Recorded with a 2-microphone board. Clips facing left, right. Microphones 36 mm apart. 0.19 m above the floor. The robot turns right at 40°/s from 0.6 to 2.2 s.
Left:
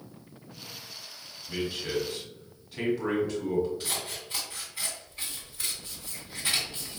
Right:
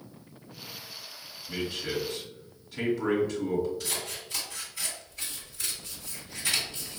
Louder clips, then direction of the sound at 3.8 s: Even; 30° left (ahead or behind).